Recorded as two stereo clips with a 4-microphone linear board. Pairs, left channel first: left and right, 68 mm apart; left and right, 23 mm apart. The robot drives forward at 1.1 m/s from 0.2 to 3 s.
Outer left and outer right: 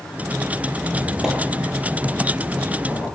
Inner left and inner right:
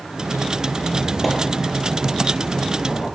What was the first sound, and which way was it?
A squeak, 15° right (ahead or behind).